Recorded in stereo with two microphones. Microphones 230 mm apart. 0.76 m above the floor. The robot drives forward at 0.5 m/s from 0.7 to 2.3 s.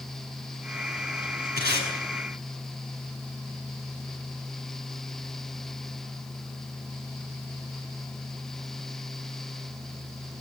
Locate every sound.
1.6 s tape being pulled: 45° left (ahead or behind), 9.5 m